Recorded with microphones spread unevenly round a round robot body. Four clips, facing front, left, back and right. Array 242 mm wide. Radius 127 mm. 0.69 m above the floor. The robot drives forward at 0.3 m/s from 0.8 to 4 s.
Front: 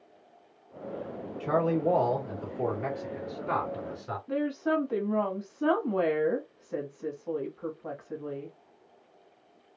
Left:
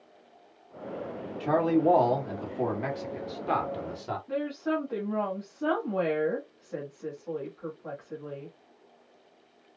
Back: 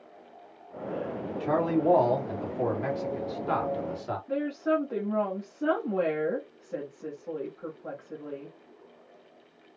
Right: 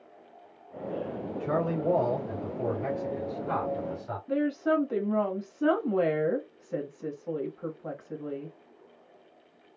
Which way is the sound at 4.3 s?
95° right.